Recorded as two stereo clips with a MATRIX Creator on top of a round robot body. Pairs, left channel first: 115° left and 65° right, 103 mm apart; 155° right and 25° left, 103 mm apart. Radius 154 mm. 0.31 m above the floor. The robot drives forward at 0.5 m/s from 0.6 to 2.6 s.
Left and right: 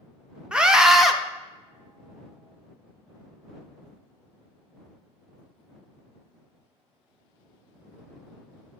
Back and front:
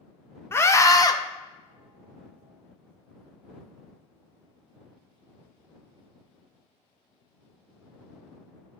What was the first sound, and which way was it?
A scream, 135° right.